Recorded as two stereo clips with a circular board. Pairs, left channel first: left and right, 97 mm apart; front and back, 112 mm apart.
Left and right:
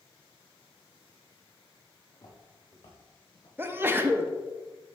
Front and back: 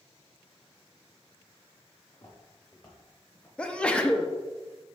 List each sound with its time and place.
2.1 s footsteps: 40° left, 2.5 m; by 3.5 s 70° left, 3 m
3.6 s a sneeze: 65° right, 0.5 m